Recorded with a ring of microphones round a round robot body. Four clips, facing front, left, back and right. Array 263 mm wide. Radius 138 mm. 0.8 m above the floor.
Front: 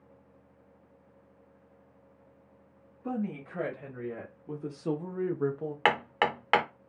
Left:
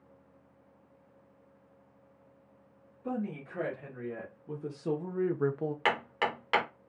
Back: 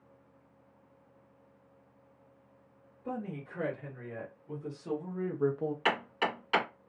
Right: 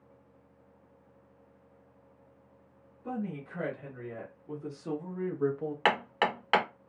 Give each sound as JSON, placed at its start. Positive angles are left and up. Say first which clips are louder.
{"t": 3.0, "sound": "a woman speaking", "louder": "left 1 dB, front 4 dB", "azimuth_deg": 10, "distance_m": 2.0}
{"t": 5.8, "sound": "hammering", "louder": "right 4 dB, front 7 dB", "azimuth_deg": -20, "distance_m": 1.1}